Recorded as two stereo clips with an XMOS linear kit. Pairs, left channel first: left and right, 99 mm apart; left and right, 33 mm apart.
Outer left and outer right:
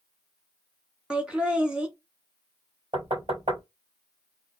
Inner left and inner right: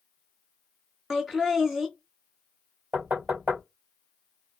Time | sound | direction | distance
1.1 | laughter | 10° right (ahead or behind) | 1.1 m
2.9 | knocking | 70° right (ahead or behind) | 3 m